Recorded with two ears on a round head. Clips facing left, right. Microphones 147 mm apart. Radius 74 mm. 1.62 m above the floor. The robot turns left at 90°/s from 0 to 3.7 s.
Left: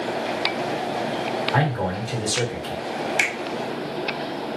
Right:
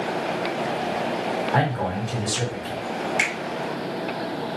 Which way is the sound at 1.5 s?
175° right.